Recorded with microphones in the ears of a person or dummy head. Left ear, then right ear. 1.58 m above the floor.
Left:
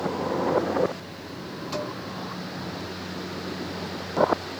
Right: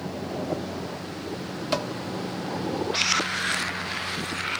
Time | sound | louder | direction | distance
1.7 | dishes clattering | right 4 dB | 25° right (ahead or behind) | 0.6 m